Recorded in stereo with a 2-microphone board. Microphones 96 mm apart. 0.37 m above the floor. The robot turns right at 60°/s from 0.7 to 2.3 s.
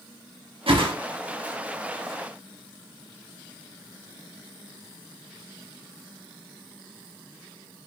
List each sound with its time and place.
0.7 s a whoosh: 70° right (ahead or behind), 0.6 m; by 0.9 s 55° right (ahead or behind), 0.6 m